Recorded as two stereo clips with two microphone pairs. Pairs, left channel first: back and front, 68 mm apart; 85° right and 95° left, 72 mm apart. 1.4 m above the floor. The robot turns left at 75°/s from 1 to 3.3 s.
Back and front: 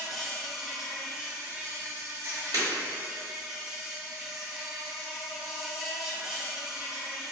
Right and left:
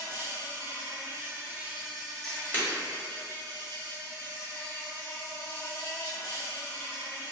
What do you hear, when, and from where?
0.0 s an insect: 95° left, 0.7 m; by 7.3 s 80° right, 0.7 m
2.5 s breaking glass: 15° right, 1.2 m; by 2.7 s 25° right, 1.2 m